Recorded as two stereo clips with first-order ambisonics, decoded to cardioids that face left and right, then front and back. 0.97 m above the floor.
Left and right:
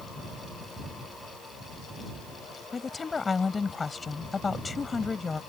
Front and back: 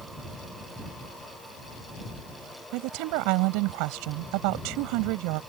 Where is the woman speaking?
165° left.